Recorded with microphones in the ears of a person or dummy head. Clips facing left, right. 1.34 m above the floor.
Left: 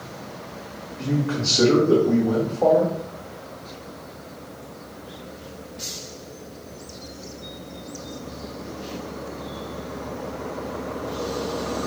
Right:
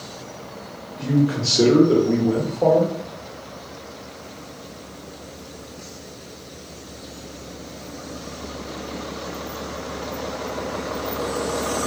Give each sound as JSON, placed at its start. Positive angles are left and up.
{"t": 1.0, "sound": "a man speaking", "side_deg": -10, "distance_m": 1.0}